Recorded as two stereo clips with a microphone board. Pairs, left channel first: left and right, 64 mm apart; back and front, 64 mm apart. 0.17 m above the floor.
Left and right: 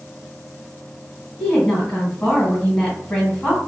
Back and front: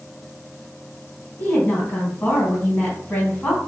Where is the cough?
No cough in this recording.